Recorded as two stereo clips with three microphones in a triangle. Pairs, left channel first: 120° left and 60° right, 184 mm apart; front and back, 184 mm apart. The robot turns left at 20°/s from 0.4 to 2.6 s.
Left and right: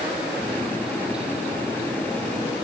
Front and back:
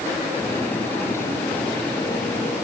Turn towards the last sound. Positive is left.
No sound to turn to.